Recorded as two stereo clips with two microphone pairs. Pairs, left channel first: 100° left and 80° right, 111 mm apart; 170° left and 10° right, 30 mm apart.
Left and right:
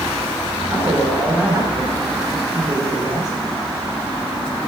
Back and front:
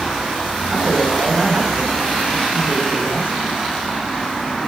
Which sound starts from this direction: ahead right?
A man speaking, at 0.7 s.